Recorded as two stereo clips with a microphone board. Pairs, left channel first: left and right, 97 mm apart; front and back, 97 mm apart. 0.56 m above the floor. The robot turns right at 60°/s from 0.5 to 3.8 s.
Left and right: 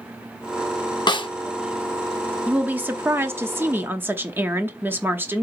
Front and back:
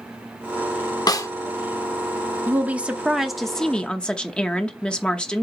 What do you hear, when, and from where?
1.1 s a snare drum: 50° left, 0.6 m; by 1.3 s 60° left, 0.6 m
2.5 s a woman speaking: 145° right, 0.8 m; by 5.4 s 65° right, 0.8 m